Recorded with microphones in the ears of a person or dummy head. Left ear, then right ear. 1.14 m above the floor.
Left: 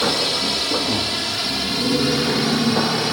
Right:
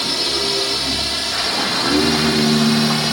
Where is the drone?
5° left (ahead or behind); by 3.1 s 20° right (ahead or behind).